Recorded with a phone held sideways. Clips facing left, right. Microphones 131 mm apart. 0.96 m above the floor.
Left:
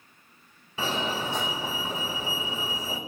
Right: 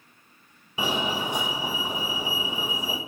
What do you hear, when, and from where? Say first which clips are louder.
0.8 s a fire alarm: right 2 dB; 15° right (ahead or behind), 1.7 m